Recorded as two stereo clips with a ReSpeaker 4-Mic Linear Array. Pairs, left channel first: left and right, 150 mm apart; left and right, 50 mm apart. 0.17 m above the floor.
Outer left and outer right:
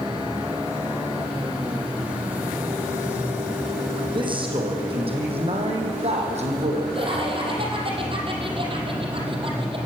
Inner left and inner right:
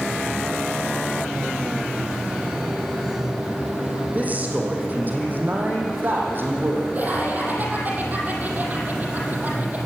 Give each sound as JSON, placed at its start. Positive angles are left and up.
{"t": 4.1, "sound": "a man speaking", "side_deg": -35, "distance_m": 6.0}
{"t": 7.0, "sound": "laughter", "side_deg": -35, "distance_m": 6.0}